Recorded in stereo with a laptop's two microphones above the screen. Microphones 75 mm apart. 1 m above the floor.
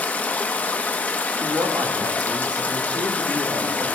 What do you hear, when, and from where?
0.0 s running water: 20° left (ahead or behind), 0.9 m
1.4 s a woman speaking: 70° right (ahead or behind), 1.7 m